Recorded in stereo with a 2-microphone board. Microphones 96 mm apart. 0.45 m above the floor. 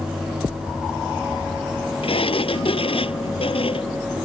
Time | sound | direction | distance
2.0 | a sliding door | 70° left (ahead or behind) | ?